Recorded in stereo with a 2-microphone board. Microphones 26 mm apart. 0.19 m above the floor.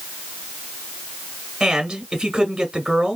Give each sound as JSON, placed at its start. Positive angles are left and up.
{"t": 1.6, "sound": "a man speaking", "side_deg": -20, "distance_m": 1.6}